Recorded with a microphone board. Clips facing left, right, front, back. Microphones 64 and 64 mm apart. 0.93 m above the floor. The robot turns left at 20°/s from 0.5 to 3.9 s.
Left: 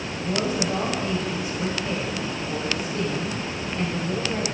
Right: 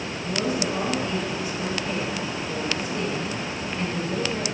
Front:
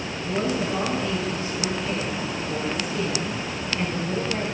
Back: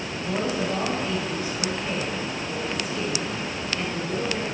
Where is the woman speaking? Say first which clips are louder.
Left 1 dB, front 1 dB; 135° left, 5 m; by 4.5 s 65° left, 5 m.